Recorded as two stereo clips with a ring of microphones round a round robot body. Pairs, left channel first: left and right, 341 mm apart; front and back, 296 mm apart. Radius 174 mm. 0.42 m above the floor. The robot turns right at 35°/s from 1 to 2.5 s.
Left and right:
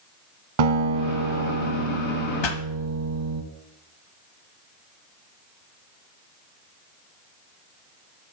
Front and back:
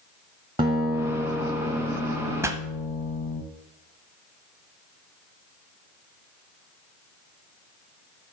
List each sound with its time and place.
0.6 s a guitar: 105° right, 1.6 m; by 3.4 s 50° right, 1.6 m
2.4 s a pop: 100° left, 1.4 m